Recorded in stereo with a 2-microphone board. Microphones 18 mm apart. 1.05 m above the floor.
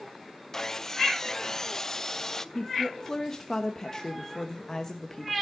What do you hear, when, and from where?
0.5 s sawing: 20° left (ahead or behind), 0.5 m
2.5 s a woman speaking: 25° left (ahead or behind), 1.1 m